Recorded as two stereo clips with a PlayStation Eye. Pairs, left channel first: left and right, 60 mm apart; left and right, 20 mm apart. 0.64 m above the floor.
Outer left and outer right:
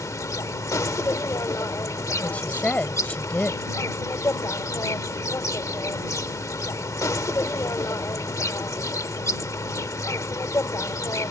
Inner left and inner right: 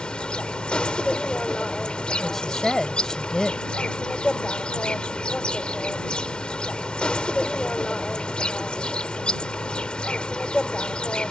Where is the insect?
65° left (ahead or behind).